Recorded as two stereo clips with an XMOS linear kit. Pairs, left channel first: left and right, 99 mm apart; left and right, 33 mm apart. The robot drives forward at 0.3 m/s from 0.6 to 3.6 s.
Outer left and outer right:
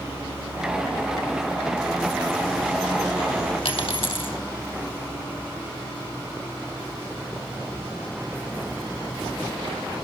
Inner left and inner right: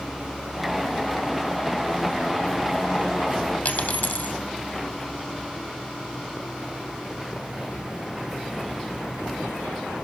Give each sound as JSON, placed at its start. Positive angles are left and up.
{"t": 3.6, "sound": "a dropped coin", "side_deg": 75, "distance_m": 3.5}